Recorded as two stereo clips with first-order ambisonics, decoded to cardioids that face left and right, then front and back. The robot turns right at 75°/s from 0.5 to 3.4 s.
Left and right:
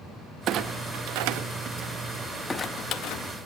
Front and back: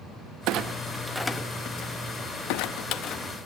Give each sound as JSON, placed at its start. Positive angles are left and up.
{"t": 0.5, "sound": "a clunk", "azimuth_deg": -140, "distance_m": 0.8}